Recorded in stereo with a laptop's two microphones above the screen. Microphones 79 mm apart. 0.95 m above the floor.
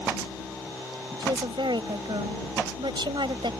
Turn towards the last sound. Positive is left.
turn(degrees=-80)